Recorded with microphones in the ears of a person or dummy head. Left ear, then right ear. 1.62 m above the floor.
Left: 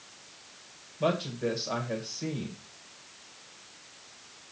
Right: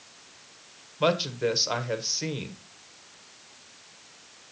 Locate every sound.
1.0 s a woman speaking: 50° right (ahead or behind), 1.5 m